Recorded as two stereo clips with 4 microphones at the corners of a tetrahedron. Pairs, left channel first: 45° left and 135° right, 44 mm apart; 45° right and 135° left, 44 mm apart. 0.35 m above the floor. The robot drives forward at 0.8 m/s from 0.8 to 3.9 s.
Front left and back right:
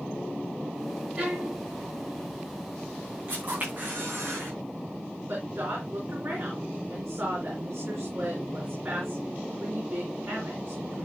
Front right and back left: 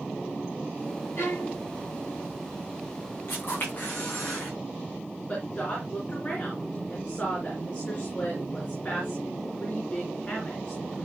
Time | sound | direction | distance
1.2 | a violin | 70° right | 6.5 m
3.3 | a camera shutter | 85° right | 7.5 m
5.3 | a woman speaking | 105° right | 4 m